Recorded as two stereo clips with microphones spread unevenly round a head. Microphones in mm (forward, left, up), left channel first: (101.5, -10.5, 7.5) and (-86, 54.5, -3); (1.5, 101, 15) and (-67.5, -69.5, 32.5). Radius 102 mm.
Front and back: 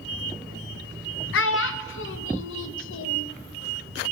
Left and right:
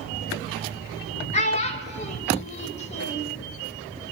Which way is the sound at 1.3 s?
10° left.